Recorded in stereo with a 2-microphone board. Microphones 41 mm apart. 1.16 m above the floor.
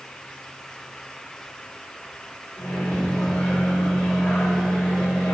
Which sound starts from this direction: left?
A microwave, at 2.6 s.